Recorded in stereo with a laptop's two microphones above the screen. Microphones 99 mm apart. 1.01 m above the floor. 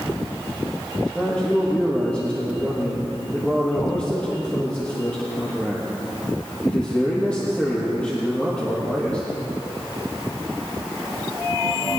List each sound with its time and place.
1.1 s a man speaking: 15° left (ahead or behind), 1.2 m